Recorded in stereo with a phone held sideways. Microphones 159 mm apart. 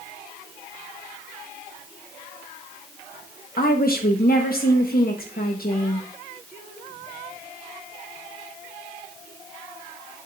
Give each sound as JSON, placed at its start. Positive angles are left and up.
{"t": 3.6, "sound": "a woman speaking", "side_deg": 70, "distance_m": 1.2}